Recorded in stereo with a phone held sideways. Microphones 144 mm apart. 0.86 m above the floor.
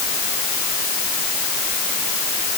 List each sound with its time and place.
Only background noise.